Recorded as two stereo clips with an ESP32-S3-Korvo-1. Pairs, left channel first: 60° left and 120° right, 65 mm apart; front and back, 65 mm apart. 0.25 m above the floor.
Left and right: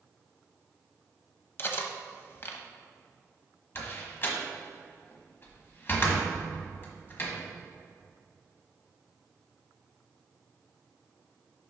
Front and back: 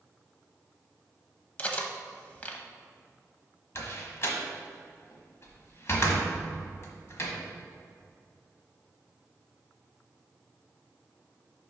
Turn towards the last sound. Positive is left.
turn(degrees=25)